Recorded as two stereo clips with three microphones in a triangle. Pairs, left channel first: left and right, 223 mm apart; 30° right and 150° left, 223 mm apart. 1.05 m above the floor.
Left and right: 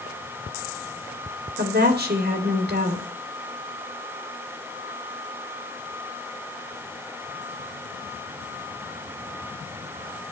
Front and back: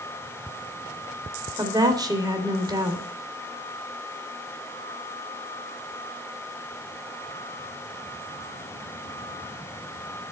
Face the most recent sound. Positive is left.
turn(degrees=-135)